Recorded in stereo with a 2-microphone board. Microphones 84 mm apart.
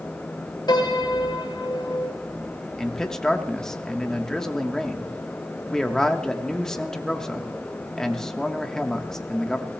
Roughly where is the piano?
Left.